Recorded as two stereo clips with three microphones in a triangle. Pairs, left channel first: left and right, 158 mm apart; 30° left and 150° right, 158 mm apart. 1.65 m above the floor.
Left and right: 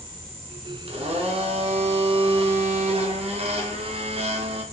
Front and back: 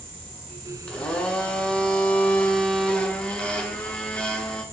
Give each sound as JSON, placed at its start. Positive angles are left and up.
{"t": 0.9, "sound": "a blender", "azimuth_deg": -50, "distance_m": 1.1}